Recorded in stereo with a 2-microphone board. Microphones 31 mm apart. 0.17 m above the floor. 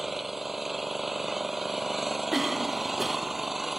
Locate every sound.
0.0 s an engine running: 5° right (ahead or behind)
2.3 s a cough: 10° right (ahead or behind)